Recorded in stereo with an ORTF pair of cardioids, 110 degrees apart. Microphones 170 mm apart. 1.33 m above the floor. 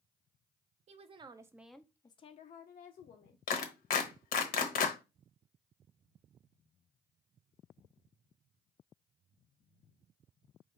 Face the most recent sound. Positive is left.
turn(degrees=60)